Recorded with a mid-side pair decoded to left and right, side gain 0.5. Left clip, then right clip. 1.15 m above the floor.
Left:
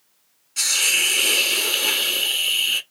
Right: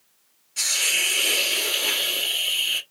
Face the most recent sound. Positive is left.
turn(degrees=25)